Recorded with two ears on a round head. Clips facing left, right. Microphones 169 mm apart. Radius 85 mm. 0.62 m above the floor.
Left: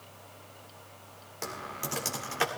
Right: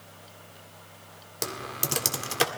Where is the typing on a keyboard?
45° right (ahead or behind), 1.9 m.